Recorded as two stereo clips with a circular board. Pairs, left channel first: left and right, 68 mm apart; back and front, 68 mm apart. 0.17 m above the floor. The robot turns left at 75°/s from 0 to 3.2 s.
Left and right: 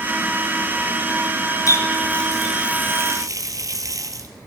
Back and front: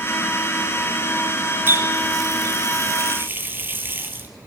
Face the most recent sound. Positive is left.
turn(degrees=-60)